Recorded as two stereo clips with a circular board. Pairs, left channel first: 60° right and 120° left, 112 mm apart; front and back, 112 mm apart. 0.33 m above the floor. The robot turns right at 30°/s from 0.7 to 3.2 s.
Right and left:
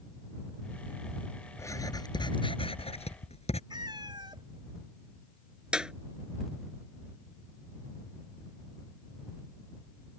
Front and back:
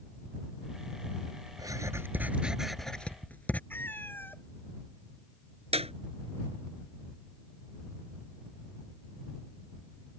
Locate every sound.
1.6 s writing: 125° right; by 3.6 s 75° right
3.7 s a cat meowing: 70° left
5.7 s a clap: 160° right